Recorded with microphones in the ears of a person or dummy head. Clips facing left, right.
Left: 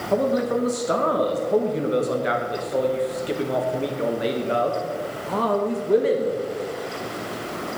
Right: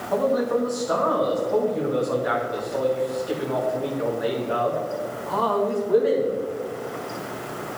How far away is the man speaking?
About 1.5 m.